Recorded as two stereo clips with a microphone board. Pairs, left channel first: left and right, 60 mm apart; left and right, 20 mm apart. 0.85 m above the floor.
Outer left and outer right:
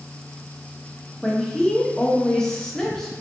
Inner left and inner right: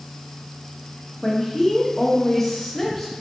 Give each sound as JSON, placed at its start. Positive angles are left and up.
{"t": 1.2, "sound": "a woman speaking", "side_deg": 10, "distance_m": 0.8}